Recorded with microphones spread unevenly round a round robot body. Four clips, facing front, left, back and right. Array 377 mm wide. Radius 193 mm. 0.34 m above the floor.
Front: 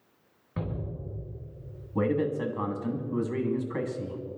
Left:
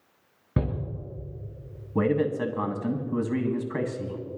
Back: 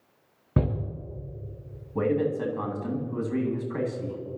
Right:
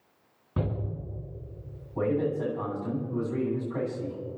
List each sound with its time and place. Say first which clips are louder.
0.6 s a shout: left 3 dB, back 8 dB; 155° left, 4.5 m
1.9 s a man speaking: left 3 dB, back 2 dB; 80° left, 2.5 m